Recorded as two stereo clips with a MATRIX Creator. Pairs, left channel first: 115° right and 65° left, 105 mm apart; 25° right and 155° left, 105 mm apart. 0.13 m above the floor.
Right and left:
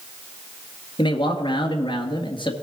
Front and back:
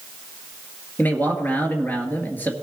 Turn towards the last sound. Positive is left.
turn(degrees=-95)